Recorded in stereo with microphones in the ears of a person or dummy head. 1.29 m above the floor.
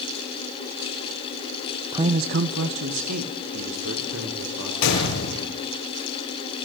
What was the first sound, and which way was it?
A man speaking, 20° right (ahead or behind).